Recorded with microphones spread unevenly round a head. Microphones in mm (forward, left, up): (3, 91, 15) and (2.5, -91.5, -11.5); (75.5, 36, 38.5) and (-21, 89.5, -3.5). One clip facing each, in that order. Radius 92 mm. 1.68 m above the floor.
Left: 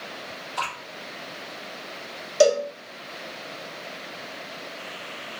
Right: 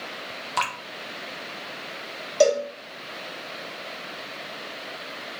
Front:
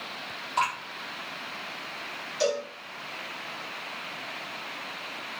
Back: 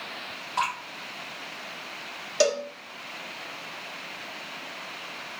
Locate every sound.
0.6 s dripping: 95° right, 0.9 m
2.4 s a cowbell: 165° left, 0.8 m